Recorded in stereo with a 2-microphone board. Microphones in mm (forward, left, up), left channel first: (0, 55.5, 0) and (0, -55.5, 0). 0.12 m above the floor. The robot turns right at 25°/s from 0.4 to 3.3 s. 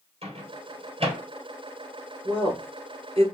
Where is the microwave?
60° right (ahead or behind), 1.9 m.